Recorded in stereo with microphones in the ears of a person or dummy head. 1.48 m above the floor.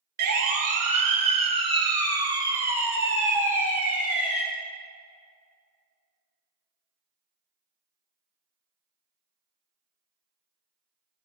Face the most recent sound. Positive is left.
turn(degrees=0)  # may be behind; listen again after turning